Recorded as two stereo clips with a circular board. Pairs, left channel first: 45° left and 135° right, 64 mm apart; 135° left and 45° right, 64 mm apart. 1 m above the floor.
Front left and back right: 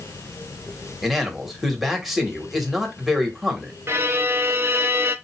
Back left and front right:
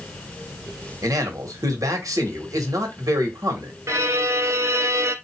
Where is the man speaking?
45° right, 1.4 m.